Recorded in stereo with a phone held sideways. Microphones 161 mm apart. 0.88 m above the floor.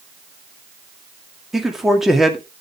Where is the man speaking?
Centre (ahead or behind), 1.9 m.